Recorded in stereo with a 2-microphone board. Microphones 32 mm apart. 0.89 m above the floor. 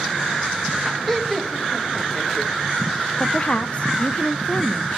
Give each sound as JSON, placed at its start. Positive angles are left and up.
{"t": 1.1, "sound": "laughter", "side_deg": 10, "distance_m": 1.5}
{"t": 3.2, "sound": "a woman speaking", "side_deg": 40, "distance_m": 0.5}